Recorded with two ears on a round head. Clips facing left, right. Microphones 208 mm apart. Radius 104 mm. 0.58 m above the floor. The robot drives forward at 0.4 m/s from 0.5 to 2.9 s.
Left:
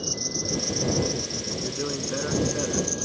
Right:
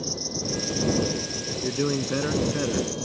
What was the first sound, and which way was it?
An insect, 15° left (ahead or behind).